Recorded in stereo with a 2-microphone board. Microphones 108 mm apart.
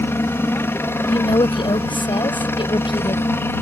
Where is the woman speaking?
50° left (ahead or behind).